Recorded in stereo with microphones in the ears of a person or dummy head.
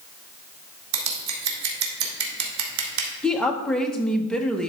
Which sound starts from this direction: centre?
A woman speaking, at 3.2 s.